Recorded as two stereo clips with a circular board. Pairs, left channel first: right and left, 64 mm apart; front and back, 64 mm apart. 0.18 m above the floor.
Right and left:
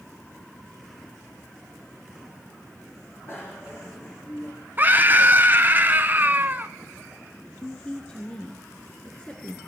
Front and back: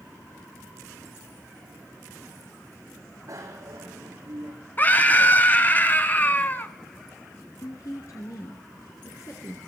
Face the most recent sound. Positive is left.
turn(degrees=-15)